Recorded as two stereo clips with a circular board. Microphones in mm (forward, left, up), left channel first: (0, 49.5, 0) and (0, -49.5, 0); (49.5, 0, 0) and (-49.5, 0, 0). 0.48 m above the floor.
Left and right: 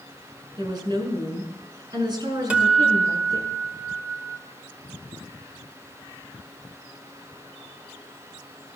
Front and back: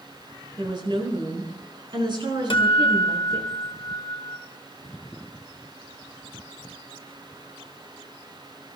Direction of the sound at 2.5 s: 10° right.